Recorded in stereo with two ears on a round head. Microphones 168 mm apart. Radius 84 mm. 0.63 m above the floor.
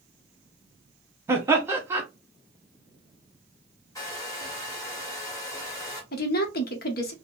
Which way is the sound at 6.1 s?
55° left (ahead or behind).